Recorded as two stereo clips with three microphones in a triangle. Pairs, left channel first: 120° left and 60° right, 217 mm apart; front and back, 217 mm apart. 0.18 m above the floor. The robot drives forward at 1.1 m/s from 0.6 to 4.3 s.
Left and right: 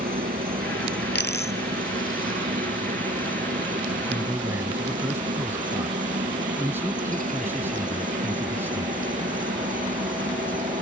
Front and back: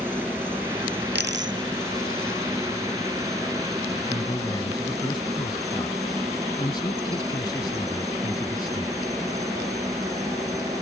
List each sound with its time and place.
0.0 s a helicopter: 100° right; by 10.8 s 105° right
1.1 s a dropped coin: 150° left; by 2.4 s 165° left
4.1 s a man speaking: straight ahead